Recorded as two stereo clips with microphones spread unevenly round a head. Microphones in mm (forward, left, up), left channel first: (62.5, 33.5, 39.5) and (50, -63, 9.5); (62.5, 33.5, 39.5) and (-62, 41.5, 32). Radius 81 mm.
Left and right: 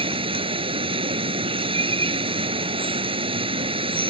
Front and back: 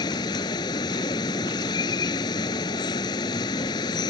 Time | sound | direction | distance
0.0 | running water | 70° right | ?